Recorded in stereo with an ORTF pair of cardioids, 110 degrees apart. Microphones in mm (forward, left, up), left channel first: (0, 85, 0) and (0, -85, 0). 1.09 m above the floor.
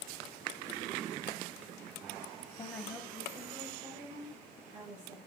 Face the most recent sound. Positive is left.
turn(degrees=-50)